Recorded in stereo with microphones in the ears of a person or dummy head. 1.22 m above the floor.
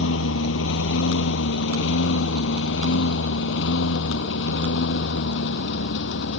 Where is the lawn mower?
75° left (ahead or behind); by 6.4 s 65° left (ahead or behind).